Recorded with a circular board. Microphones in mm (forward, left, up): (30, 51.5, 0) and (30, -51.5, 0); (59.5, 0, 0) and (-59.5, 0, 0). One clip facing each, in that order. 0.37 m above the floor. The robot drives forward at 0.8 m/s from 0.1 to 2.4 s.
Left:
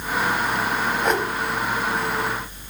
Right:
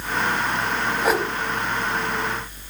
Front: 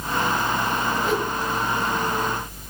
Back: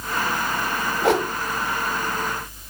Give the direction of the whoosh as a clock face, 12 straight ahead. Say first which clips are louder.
Right 2 dB, back 8 dB; 6 o'clock.